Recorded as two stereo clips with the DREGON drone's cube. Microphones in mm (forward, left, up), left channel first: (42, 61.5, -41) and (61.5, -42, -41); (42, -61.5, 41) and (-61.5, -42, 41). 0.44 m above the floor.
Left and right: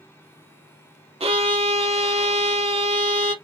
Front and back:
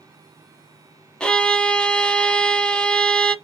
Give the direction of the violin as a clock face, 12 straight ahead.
3 o'clock.